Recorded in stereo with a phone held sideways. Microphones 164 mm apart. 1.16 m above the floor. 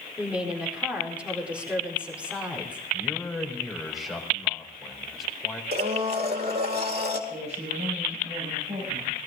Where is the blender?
75° right (ahead or behind), 2.5 m.